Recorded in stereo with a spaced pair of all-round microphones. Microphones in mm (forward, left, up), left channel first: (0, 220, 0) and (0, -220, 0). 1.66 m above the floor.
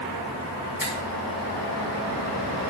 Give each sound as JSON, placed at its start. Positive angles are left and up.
{"t": 0.8, "sound": "a finger snap", "side_deg": 50, "distance_m": 3.0}